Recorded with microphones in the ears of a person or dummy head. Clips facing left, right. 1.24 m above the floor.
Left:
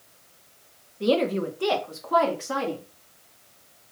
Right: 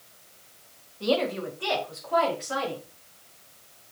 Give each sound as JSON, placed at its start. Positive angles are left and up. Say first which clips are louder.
{"t": 1.0, "sound": "a woman speaking", "louder": "left 3 dB", "side_deg": 25, "distance_m": 0.9}